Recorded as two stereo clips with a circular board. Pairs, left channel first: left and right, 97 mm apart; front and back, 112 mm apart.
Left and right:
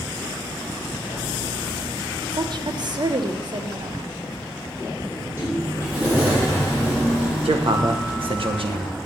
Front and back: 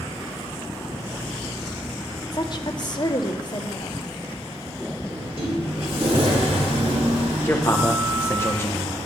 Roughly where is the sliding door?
Behind.